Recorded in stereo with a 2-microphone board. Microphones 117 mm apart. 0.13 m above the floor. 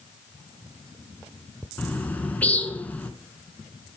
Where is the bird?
15° left (ahead or behind), 1.0 m.